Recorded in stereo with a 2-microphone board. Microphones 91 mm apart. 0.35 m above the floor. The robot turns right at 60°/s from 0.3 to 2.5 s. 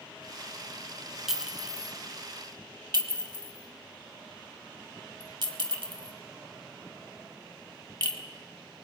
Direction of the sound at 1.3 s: 5° right (ahead or behind).